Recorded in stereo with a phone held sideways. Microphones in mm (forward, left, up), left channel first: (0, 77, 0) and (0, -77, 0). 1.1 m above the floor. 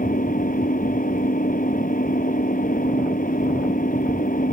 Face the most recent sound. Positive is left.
turn(degrees=60)  # may be behind; listen again after turning